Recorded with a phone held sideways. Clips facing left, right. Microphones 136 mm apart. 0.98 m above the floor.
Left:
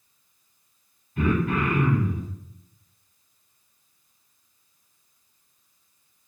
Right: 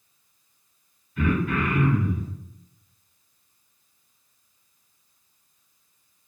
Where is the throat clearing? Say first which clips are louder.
Left 1 dB; 50° left (ahead or behind), 1.6 m.